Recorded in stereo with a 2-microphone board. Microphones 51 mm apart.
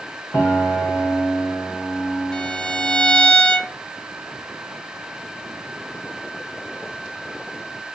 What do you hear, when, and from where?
0.3 s a piano: 75° left (ahead or behind), 1.1 m
2.3 s a violin: 20° left (ahead or behind), 0.8 m